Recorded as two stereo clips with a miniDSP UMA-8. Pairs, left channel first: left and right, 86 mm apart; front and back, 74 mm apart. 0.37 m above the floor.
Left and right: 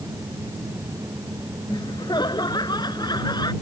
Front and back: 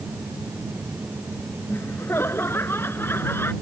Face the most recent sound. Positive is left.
turn(degrees=60)